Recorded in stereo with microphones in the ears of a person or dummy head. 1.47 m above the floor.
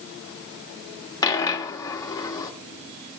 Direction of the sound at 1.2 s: 20° left (ahead or behind).